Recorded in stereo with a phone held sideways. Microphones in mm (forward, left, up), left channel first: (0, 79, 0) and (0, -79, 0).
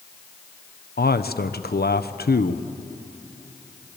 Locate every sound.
1.0 s a man speaking: 85° left, 1.0 m